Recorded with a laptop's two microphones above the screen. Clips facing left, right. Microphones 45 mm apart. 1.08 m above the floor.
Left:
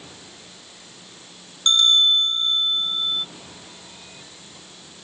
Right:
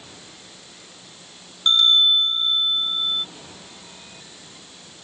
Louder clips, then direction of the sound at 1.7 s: Even; 5° right (ahead or behind).